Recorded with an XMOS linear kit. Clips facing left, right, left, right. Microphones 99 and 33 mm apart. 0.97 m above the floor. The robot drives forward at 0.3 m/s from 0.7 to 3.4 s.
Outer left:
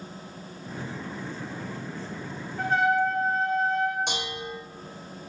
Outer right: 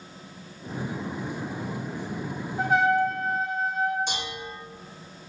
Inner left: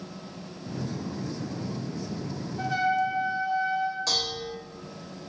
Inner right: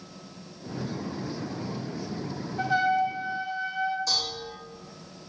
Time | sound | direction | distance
2.6 | a trumpet | 15° right (ahead or behind) | 0.8 m
4.1 | dishes clattering | 60° left (ahead or behind) | 1.0 m